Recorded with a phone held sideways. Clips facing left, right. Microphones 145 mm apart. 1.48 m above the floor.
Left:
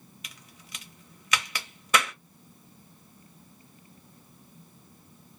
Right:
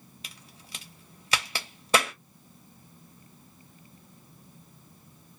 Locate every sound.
0.2 s a crack: 30° right (ahead or behind), 0.8 m